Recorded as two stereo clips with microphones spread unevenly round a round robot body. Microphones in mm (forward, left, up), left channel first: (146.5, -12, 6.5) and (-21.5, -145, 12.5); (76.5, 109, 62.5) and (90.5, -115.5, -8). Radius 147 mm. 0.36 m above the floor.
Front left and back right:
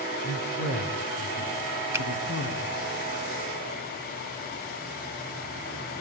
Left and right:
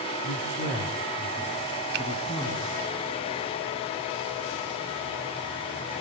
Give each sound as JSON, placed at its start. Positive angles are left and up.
{"t": 0.2, "sound": "a man speaking", "azimuth_deg": 60, "distance_m": 3.0}
{"t": 1.9, "sound": "a finger snap", "azimuth_deg": -65, "distance_m": 1.5}